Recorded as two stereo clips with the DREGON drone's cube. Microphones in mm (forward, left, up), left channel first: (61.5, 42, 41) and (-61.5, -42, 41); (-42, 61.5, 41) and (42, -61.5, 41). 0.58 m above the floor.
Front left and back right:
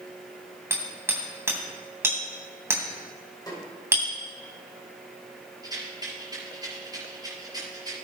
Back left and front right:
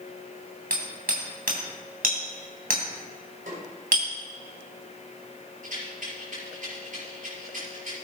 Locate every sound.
0.7 s hammering: 75° right, 2.5 m
3.5 s a snare drum: 30° right, 5 m
5.6 s a rattle: 85° right, 5.5 m